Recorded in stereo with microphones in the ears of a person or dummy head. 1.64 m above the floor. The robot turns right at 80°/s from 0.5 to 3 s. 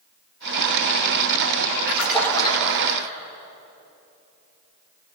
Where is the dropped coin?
No dropped coin in this recording.